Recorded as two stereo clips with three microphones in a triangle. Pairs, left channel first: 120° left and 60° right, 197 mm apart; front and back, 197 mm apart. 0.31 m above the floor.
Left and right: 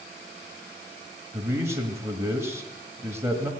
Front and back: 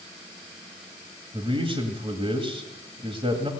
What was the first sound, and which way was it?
A man speaking, 130° right.